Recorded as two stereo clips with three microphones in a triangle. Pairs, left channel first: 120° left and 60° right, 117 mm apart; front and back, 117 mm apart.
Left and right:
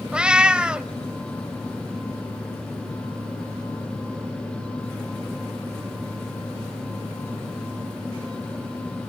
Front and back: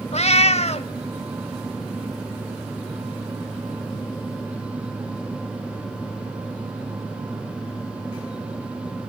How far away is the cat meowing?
About 0.9 m.